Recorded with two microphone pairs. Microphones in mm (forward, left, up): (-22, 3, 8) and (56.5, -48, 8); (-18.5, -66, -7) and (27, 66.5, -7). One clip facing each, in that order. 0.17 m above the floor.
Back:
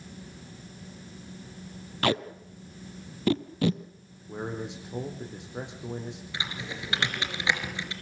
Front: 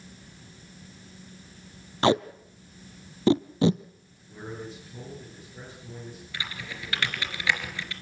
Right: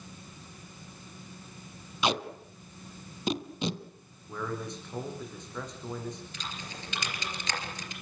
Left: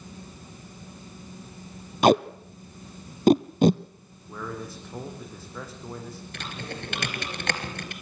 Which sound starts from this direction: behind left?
A man speaking, at 4.3 s.